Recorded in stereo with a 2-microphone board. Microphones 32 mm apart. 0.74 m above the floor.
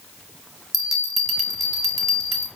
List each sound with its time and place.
0.7 s a bell: centre (ahead or behind), 1.0 m